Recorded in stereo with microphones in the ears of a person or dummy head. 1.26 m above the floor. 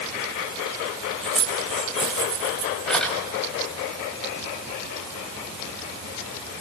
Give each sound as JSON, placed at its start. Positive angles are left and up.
{"t": 1.2, "sound": "keys jangling", "side_deg": 5, "distance_m": 4.0}